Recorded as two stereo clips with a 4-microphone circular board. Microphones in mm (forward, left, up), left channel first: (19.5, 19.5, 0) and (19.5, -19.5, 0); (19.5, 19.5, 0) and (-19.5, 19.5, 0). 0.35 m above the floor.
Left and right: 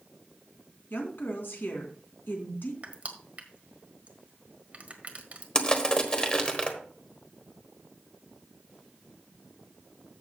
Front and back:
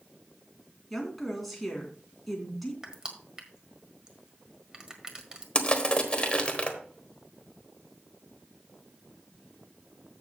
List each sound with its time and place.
0.9 s a woman speaking: 85° left, 3 m
2.8 s crushing: 120° right, 1.6 m
5.5 s crushing: 40° left, 1.4 m